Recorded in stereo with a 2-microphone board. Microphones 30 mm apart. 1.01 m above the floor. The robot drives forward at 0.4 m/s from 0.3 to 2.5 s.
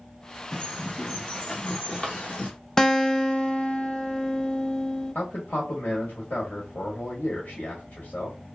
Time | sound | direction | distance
0.5 | a bird | 30° left (ahead or behind) | 1.4 m
2.8 | a guitar | 20° left (ahead or behind) | 0.5 m
5.2 | a man speaking | 75° left (ahead or behind) | 1.3 m